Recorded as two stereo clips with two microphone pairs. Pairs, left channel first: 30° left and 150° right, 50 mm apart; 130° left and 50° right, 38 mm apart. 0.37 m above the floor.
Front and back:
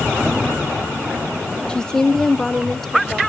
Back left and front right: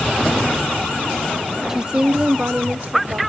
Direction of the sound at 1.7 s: Straight ahead.